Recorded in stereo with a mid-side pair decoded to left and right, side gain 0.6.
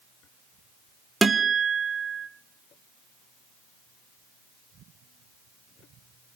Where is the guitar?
15° right, 1.4 m.